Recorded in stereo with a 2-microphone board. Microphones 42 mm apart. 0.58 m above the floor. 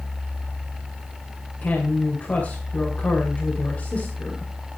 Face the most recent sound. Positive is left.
turn(degrees=40)  # may be behind; listen again after turning